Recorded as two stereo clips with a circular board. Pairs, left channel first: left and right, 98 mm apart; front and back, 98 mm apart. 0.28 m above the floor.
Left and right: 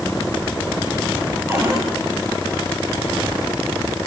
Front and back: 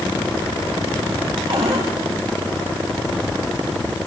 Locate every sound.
1.5 s a cupboard door: 150° right, 9.5 m